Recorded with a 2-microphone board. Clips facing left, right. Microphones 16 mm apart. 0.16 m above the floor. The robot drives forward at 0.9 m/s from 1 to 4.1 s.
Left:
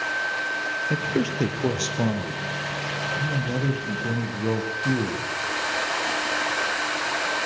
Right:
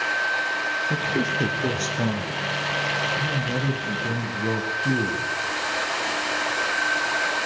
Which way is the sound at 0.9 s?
25° left (ahead or behind).